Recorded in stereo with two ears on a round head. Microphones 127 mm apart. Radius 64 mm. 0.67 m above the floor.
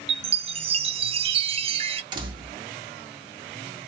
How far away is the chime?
About 0.5 m.